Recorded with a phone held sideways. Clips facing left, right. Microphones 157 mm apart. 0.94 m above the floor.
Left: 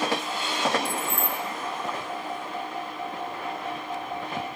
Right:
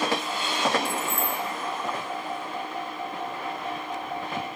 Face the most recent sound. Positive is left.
turn(degrees=35)  # may be behind; listen again after turning